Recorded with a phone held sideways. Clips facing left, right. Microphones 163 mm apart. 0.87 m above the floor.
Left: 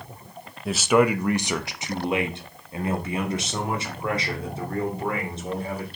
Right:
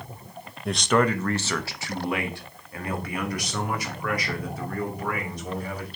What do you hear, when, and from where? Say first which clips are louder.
0.7 s a man speaking: left 3 dB; centre (ahead or behind), 0.5 m; by 5.9 s 25° left (ahead or behind), 3 m